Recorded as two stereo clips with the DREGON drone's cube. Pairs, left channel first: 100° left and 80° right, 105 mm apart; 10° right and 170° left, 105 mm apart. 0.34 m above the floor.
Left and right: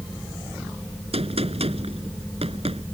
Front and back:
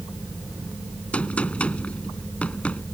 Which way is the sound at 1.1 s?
90° right.